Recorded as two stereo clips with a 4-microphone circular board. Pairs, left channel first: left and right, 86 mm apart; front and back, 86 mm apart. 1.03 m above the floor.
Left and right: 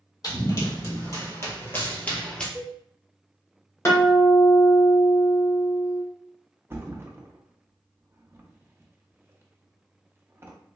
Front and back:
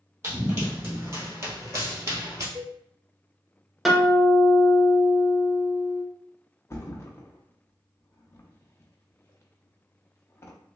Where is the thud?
45° right, 0.5 m.